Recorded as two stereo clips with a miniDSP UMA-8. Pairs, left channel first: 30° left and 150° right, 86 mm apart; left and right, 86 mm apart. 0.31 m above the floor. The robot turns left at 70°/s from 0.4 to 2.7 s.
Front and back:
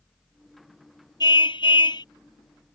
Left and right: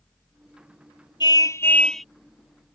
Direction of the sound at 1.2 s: 60° left.